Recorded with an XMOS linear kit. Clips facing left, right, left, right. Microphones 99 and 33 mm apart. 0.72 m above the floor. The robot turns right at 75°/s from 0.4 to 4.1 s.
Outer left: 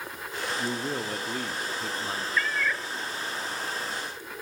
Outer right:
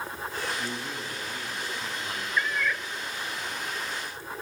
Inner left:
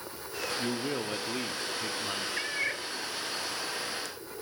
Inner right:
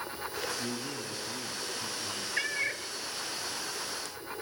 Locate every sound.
0.6 s a man speaking: 30° left, 1.7 m; by 2.3 s 155° left, 1.7 m
2.4 s a cat meowing: 20° right, 0.6 m; by 2.9 s 15° left, 0.6 m